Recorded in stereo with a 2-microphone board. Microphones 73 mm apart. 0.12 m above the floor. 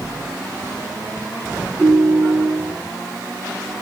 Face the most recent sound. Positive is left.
turn(degrees=-20)  # may be behind; listen again after turning